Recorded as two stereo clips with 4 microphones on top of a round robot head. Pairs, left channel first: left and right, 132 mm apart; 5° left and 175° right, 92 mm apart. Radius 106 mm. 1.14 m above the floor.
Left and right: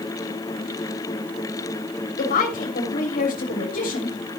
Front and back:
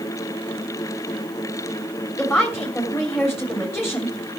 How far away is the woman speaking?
About 3.5 m.